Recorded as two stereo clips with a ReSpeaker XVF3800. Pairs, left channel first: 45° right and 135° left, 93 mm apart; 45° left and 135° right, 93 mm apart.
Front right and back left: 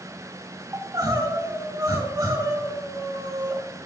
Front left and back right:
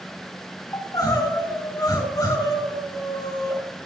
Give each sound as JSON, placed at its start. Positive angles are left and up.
{"t": 0.7, "sound": "crying", "azimuth_deg": 85, "distance_m": 3.5}